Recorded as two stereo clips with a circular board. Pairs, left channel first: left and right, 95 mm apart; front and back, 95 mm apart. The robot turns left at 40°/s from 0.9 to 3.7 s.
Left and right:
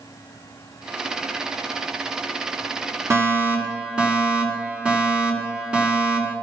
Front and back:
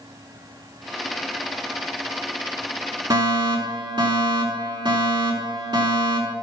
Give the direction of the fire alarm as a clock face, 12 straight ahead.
5 o'clock.